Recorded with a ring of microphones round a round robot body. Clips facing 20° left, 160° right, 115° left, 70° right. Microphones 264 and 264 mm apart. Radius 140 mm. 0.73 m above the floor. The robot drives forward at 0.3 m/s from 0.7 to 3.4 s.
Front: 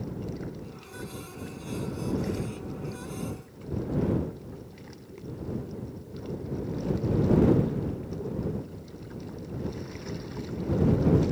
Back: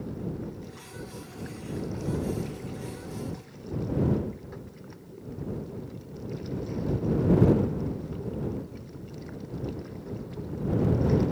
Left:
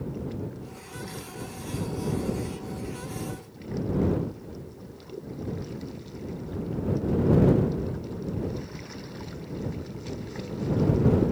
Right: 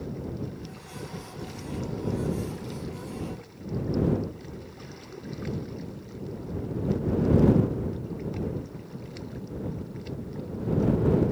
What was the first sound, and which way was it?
Only background noise.